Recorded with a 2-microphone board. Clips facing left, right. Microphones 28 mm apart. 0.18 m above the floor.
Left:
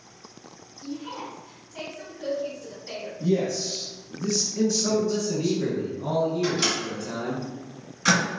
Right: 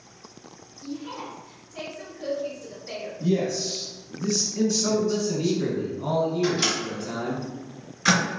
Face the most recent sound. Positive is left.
turn(degrees=0)  # may be behind; listen again after turning